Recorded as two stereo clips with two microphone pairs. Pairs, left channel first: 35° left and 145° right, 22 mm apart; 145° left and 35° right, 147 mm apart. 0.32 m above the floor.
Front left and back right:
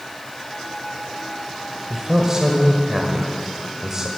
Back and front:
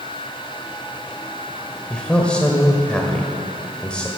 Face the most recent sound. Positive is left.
turn(degrees=-140)